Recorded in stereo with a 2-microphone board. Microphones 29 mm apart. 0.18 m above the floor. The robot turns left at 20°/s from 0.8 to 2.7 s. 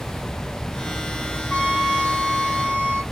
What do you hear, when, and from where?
1.5 s a trumpet: 55° left (ahead or behind), 0.9 m; by 3.0 s 50° left (ahead or behind), 0.9 m